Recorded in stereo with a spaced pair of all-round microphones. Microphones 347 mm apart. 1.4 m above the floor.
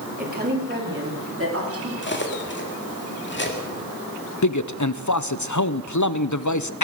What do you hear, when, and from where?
0.2 s a woman speaking: 25° right (ahead or behind), 3 m; by 1.9 s 45° right (ahead or behind), 3.5 m
2.0 s cutlery clinking: 30° left (ahead or behind), 1.8 m
4.4 s a man speaking: 55° left (ahead or behind), 0.6 m